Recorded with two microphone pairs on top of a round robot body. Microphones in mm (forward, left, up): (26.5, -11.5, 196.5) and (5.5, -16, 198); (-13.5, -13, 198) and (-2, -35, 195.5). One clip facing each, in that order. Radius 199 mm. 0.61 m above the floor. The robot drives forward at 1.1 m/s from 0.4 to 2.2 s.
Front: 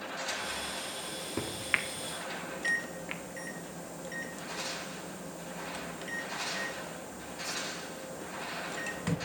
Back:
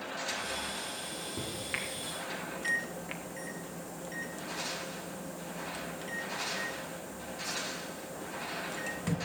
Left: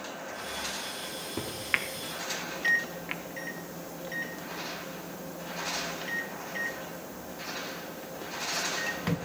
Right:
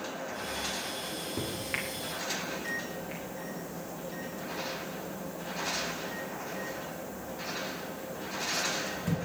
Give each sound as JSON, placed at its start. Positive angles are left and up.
{"t": 1.0, "sound": "a microwave", "azimuth_deg": 35, "distance_m": 1.9}